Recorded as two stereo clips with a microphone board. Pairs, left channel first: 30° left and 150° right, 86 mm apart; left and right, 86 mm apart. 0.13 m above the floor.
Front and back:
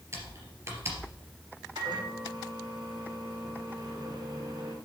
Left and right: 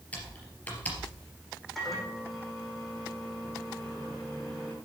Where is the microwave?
175° left, 5.5 m.